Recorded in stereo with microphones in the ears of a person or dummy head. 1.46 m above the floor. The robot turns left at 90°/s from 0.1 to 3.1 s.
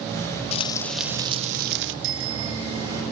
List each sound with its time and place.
0.5 s frying: 40° left, 1.0 m; by 1.9 s 90° right, 1.0 m
2.0 s a bicycle bell: 85° right, 3 m; by 3.0 s 170° right, 3 m